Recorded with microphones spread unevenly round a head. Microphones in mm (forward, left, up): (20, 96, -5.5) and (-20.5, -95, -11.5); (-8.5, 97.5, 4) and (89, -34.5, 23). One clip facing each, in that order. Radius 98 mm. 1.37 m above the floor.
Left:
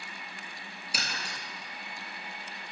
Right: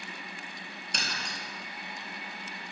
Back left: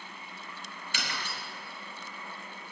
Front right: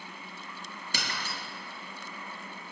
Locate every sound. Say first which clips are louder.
0.9 s breaking glass: even, front right 1 dB; 5° right, 4.5 m